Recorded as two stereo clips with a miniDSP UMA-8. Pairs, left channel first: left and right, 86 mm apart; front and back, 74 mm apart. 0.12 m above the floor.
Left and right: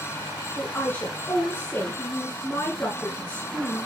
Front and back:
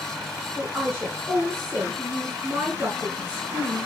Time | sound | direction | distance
0.6 | a woman speaking | 145° left | 2.0 m